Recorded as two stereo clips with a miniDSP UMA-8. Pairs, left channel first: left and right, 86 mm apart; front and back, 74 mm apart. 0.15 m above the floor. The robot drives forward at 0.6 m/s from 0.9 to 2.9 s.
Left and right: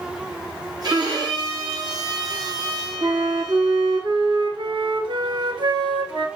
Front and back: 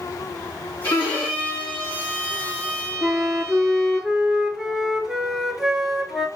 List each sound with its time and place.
0.8 s a violin: 55° right, 3 m; by 4.0 s 75° right, 2.5 m
3.0 s a flute: 95° right, 0.8 m